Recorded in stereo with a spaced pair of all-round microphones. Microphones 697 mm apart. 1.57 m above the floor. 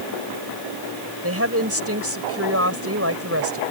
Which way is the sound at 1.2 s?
20° right (ahead or behind).